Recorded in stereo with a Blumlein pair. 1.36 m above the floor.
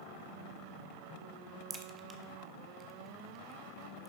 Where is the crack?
15° right, 1.0 m.